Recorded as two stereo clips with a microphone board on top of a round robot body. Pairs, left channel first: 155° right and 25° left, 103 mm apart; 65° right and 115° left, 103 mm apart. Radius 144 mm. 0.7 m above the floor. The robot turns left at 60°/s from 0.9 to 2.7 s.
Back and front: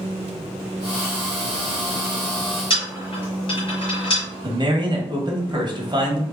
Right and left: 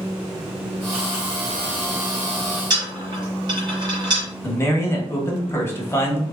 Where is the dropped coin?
160° left, 1.3 m.